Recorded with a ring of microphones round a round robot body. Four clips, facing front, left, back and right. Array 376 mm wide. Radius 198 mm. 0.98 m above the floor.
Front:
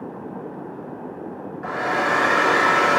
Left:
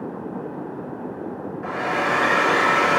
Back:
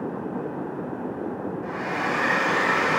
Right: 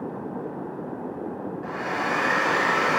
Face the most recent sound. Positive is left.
turn(degrees=35)